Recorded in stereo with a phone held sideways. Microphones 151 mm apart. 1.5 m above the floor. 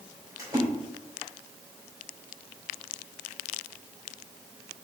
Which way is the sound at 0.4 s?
20° right (ahead or behind).